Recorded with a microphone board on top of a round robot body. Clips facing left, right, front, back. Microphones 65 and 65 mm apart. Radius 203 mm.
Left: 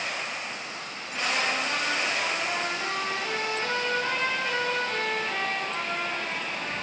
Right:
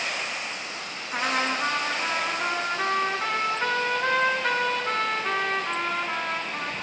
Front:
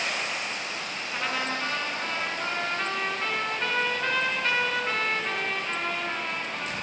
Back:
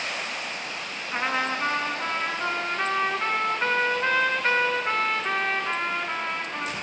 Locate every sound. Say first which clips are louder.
1.1 s a trumpet: right 2 dB, back 4 dB; 120° right, 5 m